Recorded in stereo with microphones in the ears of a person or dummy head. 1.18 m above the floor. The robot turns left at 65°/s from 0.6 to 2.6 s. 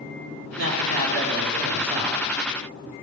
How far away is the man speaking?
About 3 m.